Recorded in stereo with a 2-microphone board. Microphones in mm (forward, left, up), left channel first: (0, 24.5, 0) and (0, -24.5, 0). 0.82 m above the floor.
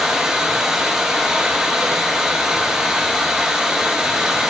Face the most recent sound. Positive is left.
turn(degrees=-5)  # may be behind; listen again after turning